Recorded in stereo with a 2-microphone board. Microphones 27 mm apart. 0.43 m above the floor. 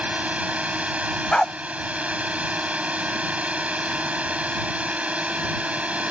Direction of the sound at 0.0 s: 60° right (ahead or behind).